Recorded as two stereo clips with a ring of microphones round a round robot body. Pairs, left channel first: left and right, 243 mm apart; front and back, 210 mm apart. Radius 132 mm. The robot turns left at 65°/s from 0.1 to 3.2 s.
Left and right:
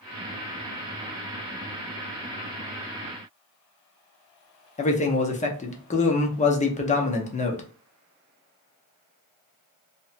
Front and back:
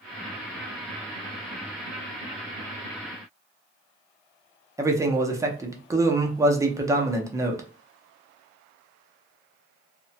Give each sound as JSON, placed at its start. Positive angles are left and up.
{"t": 4.8, "sound": "a man speaking", "azimuth_deg": 115, "distance_m": 0.7}